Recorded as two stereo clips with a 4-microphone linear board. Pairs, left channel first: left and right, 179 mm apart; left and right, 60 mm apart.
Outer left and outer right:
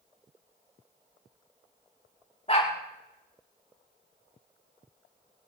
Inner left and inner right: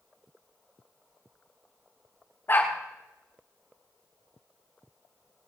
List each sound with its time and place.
2.5 s a dog barking: 35° left (ahead or behind), 7 m